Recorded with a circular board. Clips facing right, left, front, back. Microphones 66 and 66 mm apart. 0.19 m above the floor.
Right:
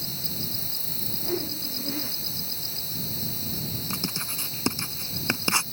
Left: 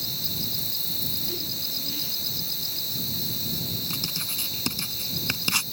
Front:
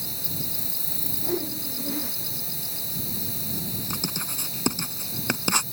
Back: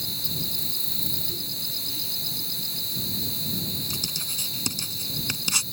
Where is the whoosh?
35° right.